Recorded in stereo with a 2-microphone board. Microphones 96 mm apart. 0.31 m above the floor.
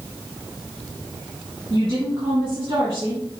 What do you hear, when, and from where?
1.7 s a woman speaking: 50° right (ahead or behind), 3 m